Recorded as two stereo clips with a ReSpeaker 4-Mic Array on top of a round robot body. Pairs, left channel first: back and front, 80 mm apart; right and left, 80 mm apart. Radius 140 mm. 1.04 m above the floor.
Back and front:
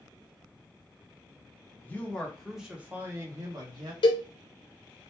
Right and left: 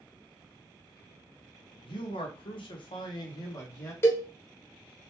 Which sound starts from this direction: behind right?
A cowbell, at 4.0 s.